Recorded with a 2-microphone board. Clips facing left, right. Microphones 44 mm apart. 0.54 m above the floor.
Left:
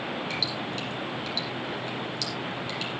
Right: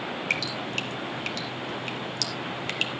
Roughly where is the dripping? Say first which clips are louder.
Right 2 dB; right.